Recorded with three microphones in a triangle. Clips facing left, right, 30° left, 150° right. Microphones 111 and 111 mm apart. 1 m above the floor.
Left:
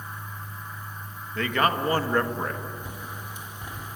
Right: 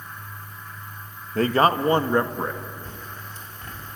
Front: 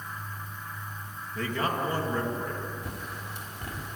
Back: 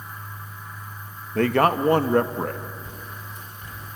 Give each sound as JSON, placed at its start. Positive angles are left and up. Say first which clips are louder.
{"t": 1.4, "sound": "a man speaking", "louder": "right 5 dB, back 10 dB", "azimuth_deg": -140, "distance_m": 1.2}
{"t": 2.8, "sound": "a bird", "louder": "left 1 dB, front 1 dB", "azimuth_deg": 15, "distance_m": 2.5}